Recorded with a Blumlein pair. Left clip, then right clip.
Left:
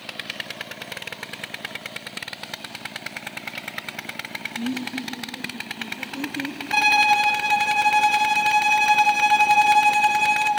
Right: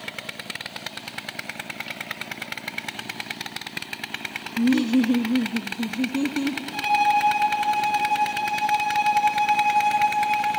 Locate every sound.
4.6 s laughter: 70° right, 0.6 m; by 6.6 s 20° right, 1.4 m
6.7 s a violin: 55° left, 3 m